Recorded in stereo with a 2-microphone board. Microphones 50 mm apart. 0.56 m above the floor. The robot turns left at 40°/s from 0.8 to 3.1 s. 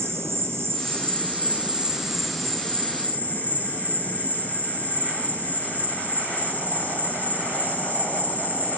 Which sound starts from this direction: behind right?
An insect, at 0.0 s.